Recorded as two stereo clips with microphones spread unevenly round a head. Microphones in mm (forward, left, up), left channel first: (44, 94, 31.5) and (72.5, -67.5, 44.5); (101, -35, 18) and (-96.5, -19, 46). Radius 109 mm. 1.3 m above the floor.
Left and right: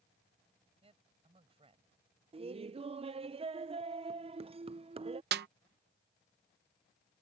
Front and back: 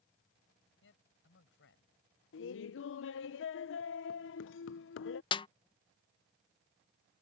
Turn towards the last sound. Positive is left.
turn(degrees=-70)